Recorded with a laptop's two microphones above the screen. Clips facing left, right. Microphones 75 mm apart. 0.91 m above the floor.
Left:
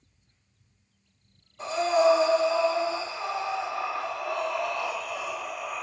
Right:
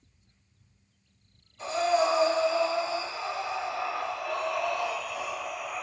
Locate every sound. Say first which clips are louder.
1.6 s breathing: left 3 dB; 40° left (ahead or behind), 0.9 m